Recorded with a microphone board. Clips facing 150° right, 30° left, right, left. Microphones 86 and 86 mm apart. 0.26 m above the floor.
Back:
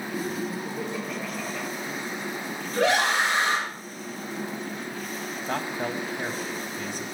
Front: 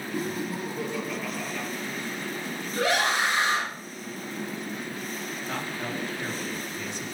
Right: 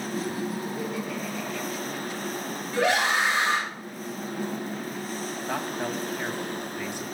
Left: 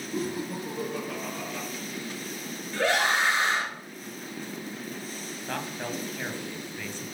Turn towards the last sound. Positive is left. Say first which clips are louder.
# back 5 dB, right 3 dB
turn(degrees=-160)